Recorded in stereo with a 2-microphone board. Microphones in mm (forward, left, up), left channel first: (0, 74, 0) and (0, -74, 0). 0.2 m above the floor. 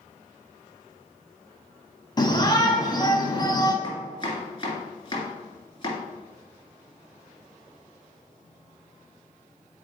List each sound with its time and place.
2.2 s a shout: 30° left (ahead or behind), 1.1 m
3.8 s chopping: 30° left (ahead or behind), 2.5 m